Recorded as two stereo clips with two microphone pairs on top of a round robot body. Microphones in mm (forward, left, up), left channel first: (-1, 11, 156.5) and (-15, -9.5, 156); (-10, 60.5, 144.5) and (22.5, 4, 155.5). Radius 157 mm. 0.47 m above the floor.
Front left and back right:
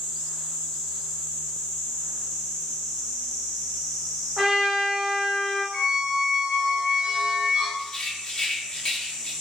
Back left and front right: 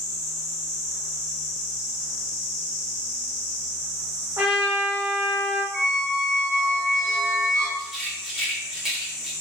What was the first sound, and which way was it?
A trumpet, 65° right.